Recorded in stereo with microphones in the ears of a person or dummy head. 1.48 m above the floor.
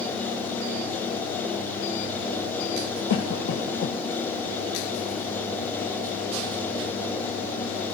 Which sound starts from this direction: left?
A cough, at 3.1 s.